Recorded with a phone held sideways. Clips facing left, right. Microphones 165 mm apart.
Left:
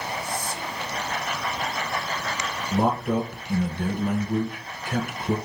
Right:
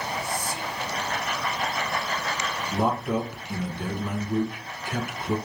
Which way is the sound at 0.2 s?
10° right (ahead or behind).